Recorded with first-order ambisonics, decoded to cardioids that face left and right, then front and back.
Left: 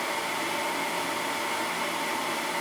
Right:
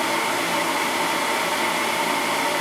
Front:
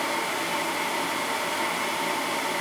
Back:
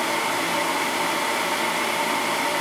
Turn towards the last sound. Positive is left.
No sound to turn to.